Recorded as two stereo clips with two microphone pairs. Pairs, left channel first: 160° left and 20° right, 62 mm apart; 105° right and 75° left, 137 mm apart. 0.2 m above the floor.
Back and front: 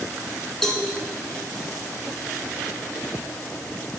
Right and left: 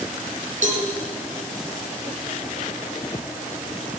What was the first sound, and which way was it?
A cowbell, 80° left.